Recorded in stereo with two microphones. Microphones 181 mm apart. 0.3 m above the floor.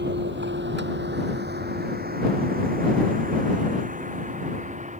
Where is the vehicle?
75° right (ahead or behind); by 5.0 s 40° right (ahead or behind).